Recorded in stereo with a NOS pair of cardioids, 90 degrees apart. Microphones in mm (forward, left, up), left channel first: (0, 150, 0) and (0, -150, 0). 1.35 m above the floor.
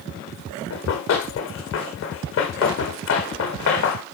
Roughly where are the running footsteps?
Ahead left.